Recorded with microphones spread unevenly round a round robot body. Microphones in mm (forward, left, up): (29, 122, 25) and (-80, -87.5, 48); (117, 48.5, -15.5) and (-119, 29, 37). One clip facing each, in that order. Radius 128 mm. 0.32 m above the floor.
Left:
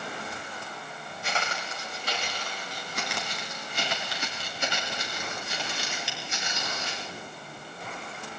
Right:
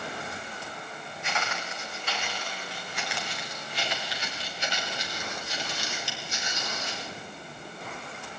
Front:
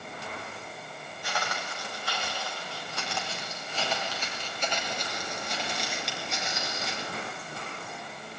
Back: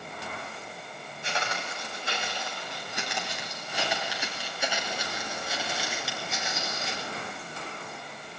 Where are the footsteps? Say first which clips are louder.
Left 1 dB, back 1 dB; 120° left, 7.5 m; by 7.1 s 95° left, 8.5 m.